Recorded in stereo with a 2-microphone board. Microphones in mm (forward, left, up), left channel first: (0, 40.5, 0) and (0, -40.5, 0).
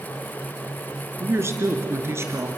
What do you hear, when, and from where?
1.2 s a woman speaking: 35° right (ahead or behind), 2 m